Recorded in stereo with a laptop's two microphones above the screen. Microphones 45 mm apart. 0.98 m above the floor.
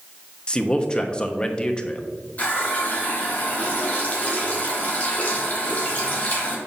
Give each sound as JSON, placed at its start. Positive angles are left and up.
{"t": 0.5, "sound": "a man speaking", "side_deg": 25, "distance_m": 1.0}
{"t": 2.4, "sound": "a running tap", "side_deg": 30, "distance_m": 1.3}